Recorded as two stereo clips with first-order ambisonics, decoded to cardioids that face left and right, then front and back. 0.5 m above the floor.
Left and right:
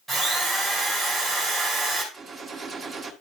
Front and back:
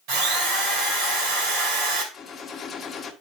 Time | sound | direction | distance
0.1 | a drill | 170° right | 3 m
2.1 | a gunshot | 50° right | 1.2 m